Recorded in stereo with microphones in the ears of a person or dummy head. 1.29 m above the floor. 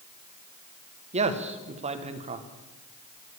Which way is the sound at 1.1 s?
30° right (ahead or behind).